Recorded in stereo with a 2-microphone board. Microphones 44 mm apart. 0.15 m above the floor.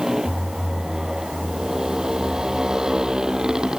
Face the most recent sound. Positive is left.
turn(degrees=-15)  # may be behind; listen again after turning